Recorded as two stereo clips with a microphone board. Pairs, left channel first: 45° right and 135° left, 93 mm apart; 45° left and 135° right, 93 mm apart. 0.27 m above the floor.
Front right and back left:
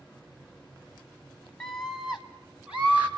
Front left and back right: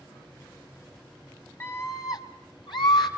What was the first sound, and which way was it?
A scream, 25° left.